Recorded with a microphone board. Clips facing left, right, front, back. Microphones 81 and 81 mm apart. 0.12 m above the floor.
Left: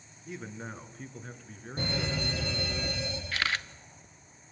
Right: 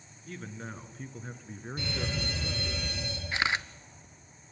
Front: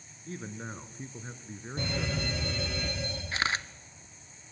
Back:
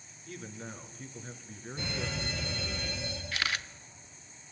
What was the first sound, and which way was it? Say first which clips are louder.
A man speaking: left 1 dB, front 3 dB; 20° left.